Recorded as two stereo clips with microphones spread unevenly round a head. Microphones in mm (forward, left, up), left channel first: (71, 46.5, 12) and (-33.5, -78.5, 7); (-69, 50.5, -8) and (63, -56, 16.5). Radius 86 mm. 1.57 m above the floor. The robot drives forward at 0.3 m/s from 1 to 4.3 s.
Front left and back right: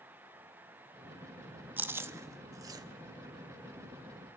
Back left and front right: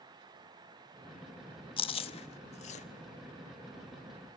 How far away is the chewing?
About 1.0 m.